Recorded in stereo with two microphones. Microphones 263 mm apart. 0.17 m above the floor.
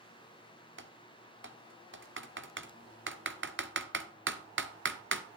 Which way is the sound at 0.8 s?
45° right (ahead or behind).